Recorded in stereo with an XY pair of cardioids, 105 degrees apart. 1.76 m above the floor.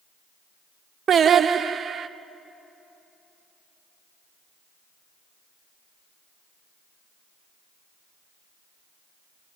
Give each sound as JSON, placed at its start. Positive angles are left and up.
{"t": 1.1, "sound": "singing", "azimuth_deg": -40, "distance_m": 0.9}